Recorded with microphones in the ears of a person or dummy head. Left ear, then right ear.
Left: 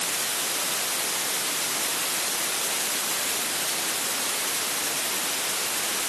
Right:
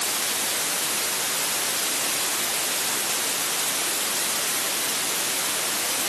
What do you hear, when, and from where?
Only background noise.